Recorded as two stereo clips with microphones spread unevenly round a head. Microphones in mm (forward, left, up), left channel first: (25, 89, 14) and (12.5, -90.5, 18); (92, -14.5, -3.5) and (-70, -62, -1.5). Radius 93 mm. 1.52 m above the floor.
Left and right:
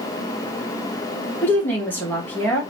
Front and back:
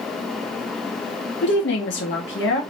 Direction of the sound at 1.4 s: 5° left.